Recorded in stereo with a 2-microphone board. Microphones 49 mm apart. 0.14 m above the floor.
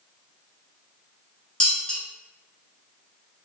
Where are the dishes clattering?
20° left (ahead or behind), 1.0 m.